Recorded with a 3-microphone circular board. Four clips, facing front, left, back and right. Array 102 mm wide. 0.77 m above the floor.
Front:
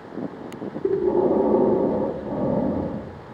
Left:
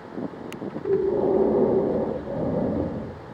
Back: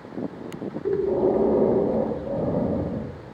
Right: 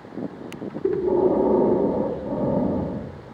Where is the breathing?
35° right, 0.9 m.